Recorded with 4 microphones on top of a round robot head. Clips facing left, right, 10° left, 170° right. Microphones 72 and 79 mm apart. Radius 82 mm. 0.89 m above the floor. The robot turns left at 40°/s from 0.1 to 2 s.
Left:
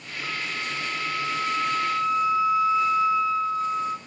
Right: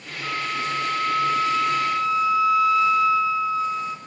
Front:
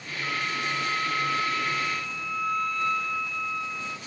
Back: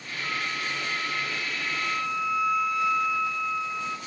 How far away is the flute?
About 1.1 m.